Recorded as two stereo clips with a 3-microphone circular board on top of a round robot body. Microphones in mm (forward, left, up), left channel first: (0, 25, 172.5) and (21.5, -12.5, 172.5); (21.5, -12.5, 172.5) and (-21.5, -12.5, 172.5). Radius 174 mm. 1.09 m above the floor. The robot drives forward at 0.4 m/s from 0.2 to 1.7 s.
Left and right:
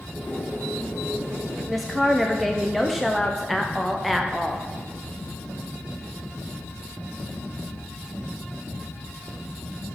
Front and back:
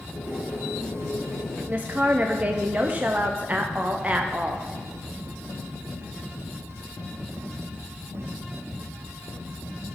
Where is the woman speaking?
150° right, 0.7 m; by 4.7 s 155° right, 0.7 m.